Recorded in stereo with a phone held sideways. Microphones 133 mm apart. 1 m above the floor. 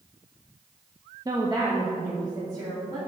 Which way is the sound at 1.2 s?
30° right (ahead or behind).